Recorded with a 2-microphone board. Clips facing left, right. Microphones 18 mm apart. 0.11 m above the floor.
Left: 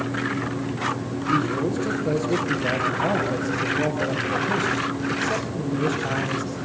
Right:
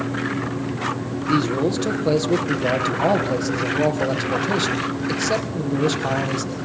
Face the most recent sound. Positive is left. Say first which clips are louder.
# right 3 dB
turn(degrees=-70)  # may be behind; listen again after turning